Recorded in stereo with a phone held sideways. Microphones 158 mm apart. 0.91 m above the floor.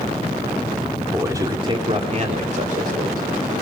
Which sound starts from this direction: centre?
A man speaking, at 1.1 s.